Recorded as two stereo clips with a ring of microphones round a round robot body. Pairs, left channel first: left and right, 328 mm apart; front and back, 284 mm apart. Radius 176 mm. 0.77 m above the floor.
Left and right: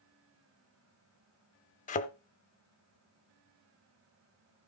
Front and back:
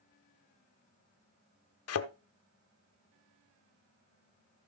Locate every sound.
1.9 s a thud: 25° left, 0.8 m